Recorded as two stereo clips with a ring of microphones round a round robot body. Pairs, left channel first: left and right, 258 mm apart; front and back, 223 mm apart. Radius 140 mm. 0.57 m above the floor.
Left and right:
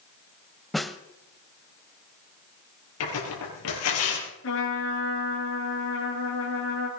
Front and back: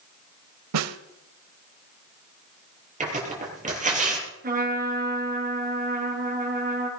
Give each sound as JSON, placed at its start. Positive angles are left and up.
{"t": 0.7, "sound": "a snare drum", "azimuth_deg": 180, "distance_m": 0.9}
{"t": 3.0, "sound": "tearing paper", "azimuth_deg": 125, "distance_m": 6.0}
{"t": 4.4, "sound": "a trumpet", "azimuth_deg": 130, "distance_m": 5.5}